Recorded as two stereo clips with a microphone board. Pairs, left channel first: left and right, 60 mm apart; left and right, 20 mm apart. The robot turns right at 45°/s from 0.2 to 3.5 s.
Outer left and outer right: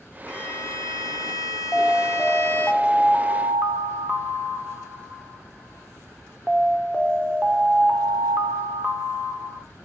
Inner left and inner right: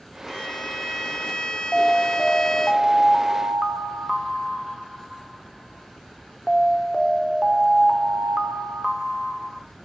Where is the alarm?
140° left, 1.9 m; by 9.7 s 140° right, 1.9 m.